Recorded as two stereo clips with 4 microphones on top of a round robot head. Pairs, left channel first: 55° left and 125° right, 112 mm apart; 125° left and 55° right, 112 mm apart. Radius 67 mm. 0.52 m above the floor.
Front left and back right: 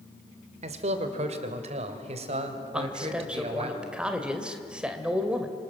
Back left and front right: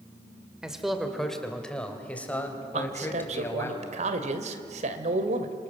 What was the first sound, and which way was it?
A man speaking, 135° right.